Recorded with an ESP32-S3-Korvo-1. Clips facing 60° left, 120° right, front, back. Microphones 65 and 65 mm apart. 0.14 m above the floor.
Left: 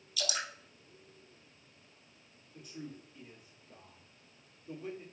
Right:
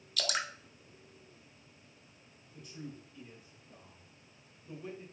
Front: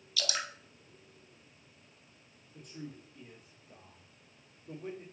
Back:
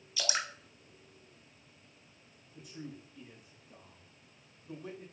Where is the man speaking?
Straight ahead, 2.5 m.